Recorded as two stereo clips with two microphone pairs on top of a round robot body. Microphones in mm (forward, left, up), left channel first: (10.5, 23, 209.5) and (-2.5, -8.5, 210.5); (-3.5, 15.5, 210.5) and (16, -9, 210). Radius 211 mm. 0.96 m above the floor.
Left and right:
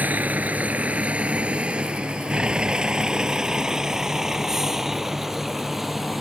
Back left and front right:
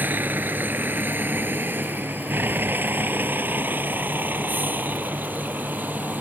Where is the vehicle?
75° right; by 6.2 s 25° right.